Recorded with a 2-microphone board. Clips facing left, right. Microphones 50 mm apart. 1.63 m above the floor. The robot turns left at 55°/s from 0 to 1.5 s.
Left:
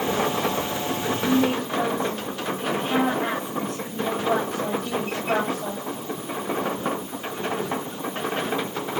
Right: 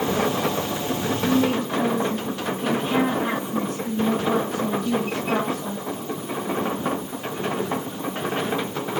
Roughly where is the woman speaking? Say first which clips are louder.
Right 1 dB; left.